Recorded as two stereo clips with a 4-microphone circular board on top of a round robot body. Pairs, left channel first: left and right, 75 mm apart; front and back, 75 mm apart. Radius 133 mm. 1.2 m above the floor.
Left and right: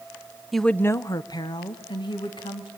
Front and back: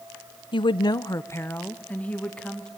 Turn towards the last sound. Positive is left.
turn(degrees=80)